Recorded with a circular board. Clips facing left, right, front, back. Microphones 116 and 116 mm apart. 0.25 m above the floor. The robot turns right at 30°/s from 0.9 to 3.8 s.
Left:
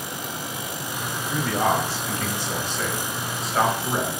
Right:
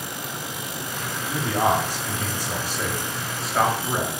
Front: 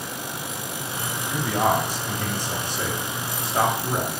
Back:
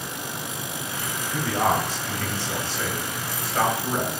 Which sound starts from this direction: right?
A man speaking, at 1.3 s.